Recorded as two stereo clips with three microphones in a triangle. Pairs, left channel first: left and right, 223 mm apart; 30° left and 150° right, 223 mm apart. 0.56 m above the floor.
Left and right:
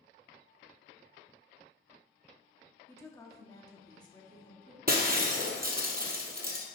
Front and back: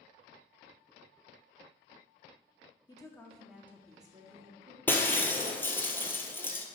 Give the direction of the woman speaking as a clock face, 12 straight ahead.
11 o'clock.